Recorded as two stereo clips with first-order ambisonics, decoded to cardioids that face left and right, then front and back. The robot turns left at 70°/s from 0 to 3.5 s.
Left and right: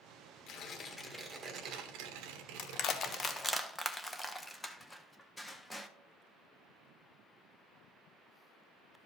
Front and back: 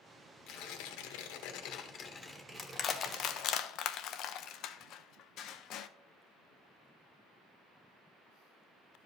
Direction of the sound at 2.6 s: 75° left.